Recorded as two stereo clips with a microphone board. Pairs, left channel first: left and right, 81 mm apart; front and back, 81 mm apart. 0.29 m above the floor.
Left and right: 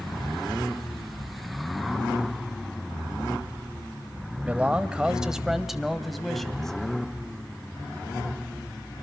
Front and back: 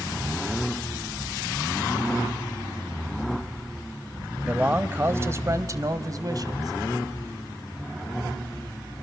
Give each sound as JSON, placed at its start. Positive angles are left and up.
{"t": 4.5, "sound": "a man speaking", "azimuth_deg": -135, "distance_m": 1.0}